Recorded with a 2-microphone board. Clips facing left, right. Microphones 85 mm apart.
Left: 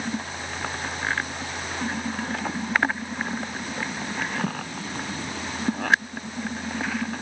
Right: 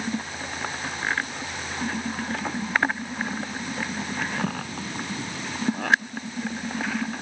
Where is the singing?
I don't hear singing.